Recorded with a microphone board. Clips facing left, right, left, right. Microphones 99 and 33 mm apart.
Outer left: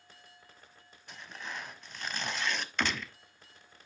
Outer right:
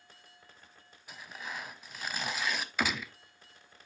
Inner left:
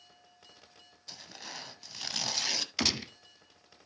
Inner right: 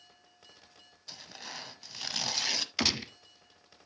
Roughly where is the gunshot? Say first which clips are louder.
Outer right 1 dB, inner right 1 dB; centre.